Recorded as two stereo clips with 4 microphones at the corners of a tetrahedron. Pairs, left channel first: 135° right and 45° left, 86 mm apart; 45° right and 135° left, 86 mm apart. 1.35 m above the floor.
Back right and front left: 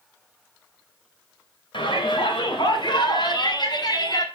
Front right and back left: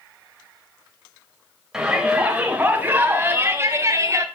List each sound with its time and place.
1.7 s a shout: 145° right, 5.5 m; by 4.2 s 175° right, 4.5 m